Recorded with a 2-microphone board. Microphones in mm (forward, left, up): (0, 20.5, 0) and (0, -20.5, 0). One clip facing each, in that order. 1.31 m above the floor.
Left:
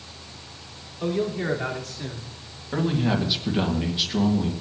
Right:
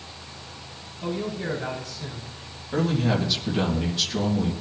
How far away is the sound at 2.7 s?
About 1.9 m.